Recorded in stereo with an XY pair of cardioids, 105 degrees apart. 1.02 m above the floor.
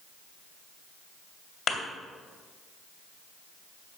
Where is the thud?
60° left, 2.5 m.